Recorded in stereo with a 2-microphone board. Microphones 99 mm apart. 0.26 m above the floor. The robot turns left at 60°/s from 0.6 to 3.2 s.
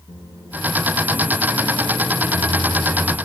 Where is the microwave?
130° left, 6.5 m; by 3.2 s 25° right, 6.5 m.